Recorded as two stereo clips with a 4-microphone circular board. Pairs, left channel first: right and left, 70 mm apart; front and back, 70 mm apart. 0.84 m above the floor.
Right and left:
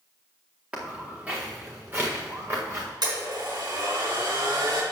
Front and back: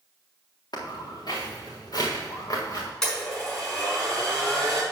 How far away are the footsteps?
About 3.5 m.